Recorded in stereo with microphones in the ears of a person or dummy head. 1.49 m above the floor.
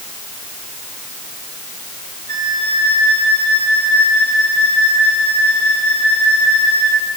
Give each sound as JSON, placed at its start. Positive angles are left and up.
{"t": 2.3, "sound": "a flute", "side_deg": -75, "distance_m": 5.0}